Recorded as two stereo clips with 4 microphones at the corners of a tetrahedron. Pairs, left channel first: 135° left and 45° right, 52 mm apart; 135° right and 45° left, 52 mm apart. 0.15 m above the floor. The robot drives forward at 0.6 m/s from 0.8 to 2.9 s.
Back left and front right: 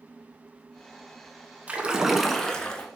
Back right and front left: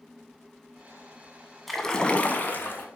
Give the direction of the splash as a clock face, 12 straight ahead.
2 o'clock.